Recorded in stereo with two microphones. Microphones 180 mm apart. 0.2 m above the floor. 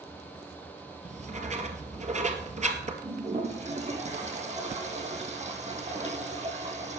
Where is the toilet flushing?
40° right (ahead or behind), 3.5 m.